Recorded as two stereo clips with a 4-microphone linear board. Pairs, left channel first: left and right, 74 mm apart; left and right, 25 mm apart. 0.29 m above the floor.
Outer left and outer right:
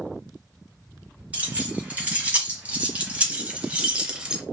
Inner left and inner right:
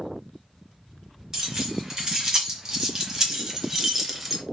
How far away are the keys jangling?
About 2 m.